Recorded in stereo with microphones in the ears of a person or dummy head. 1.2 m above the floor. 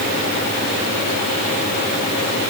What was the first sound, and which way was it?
Only background noise.